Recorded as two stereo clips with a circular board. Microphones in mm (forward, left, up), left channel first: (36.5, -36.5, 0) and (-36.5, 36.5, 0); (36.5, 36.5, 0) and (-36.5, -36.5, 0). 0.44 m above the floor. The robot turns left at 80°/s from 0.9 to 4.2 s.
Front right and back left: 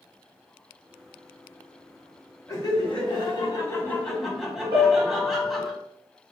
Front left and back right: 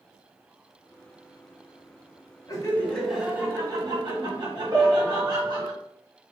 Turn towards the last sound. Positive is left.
turn(degrees=165)